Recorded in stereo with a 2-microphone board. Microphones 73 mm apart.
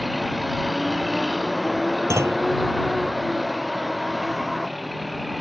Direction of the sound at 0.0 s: Centre (ahead or behind).